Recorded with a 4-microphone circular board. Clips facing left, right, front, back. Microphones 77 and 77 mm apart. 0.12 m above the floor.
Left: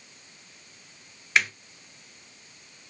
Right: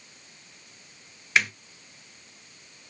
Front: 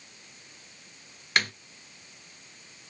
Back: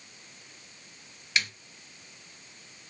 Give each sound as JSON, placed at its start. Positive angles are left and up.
{"t": 1.4, "sound": "a snare drum", "azimuth_deg": 0, "distance_m": 0.5}